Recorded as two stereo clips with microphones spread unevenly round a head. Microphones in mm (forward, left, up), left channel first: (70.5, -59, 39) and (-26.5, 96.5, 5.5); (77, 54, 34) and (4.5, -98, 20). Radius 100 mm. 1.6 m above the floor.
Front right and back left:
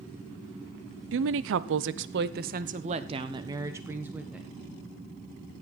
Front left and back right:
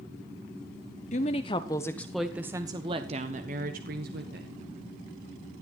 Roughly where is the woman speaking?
Behind left.